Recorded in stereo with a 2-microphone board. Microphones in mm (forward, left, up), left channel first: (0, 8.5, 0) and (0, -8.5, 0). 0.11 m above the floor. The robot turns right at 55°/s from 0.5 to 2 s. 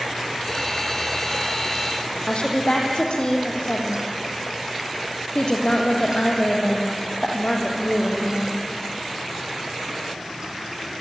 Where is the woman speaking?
65° left (ahead or behind), 5.5 m.